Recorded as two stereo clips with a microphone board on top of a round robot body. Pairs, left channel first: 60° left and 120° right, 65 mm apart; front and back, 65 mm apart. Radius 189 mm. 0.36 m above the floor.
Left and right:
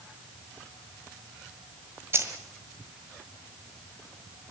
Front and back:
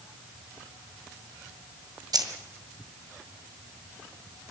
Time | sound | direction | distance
2.1 | keys jangling | 170° right | 1.9 m